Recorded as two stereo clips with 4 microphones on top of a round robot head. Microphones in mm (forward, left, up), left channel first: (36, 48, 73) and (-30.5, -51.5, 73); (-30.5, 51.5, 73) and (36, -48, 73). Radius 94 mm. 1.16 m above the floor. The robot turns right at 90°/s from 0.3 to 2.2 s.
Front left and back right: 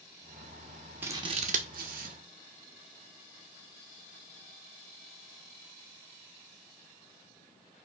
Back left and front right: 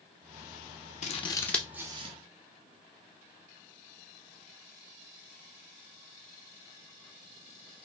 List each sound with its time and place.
1.0 s scissors: 160° left, 0.7 m; by 2.1 s 100° right, 0.7 m